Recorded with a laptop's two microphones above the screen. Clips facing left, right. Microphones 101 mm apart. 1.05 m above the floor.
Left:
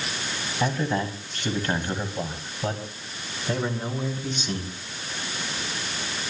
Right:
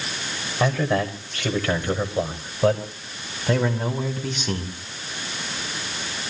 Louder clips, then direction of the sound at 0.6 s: Right 4 dB; 85° right.